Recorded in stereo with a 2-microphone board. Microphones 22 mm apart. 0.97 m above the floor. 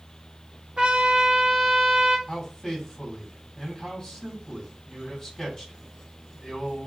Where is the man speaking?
20° left (ahead or behind), 3.5 m.